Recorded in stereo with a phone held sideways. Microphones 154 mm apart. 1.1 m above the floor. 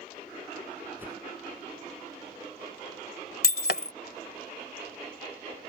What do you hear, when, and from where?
1.0 s a whoosh: 10° right (ahead or behind)
3.4 s breaking glass: 75° left (ahead or behind)